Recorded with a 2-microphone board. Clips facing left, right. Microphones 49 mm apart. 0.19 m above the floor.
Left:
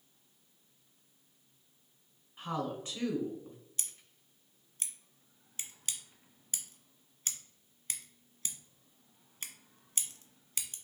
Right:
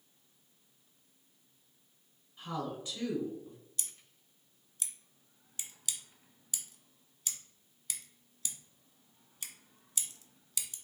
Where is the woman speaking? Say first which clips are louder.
Left 2 dB; 45° left (ahead or behind), 1.5 m.